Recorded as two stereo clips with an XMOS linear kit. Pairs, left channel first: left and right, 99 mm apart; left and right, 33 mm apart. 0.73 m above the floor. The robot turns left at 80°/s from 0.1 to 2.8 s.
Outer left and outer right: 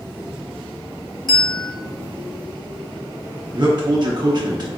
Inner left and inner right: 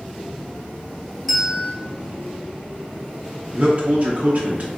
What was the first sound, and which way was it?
A bell, 5° left.